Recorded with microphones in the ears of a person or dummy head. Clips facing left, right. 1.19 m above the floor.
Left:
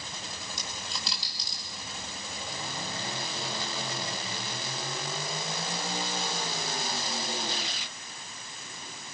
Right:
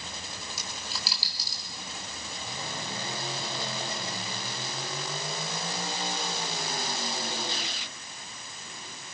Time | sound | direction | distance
0.6 | a dropped coin | 5° right (ahead or behind) | 4.5 m